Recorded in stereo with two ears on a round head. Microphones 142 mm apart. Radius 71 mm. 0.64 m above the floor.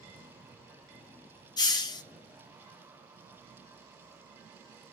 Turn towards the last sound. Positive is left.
turn(degrees=25)  # may be behind; listen again after turning